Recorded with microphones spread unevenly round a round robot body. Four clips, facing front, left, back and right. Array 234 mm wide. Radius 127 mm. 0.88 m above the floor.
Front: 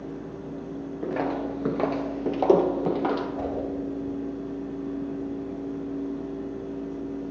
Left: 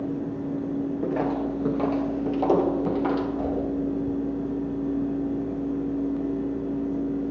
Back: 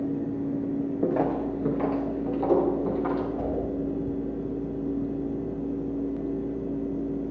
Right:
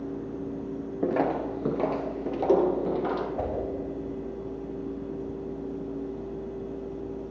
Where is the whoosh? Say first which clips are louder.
Left 3 dB, back 1 dB; 60° right, 3.5 m.